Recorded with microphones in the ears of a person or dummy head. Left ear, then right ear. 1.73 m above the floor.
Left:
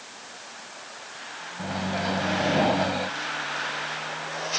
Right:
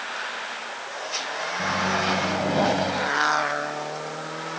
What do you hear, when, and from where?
1.6 s a microwave: 10° right (ahead or behind)